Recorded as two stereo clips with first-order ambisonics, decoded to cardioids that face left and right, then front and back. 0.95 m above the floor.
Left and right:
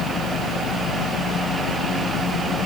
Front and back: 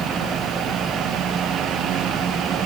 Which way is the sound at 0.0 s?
110° left.